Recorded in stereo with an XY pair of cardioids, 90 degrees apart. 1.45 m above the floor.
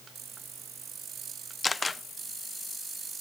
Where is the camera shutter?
35° left, 0.6 m.